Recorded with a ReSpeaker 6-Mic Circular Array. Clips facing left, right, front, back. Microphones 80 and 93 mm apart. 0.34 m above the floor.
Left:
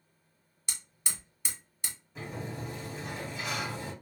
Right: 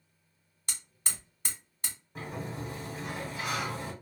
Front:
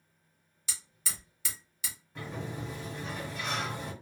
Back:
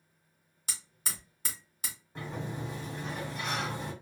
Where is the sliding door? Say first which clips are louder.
Right 1 dB, back 1 dB; 125° right, 2.0 m.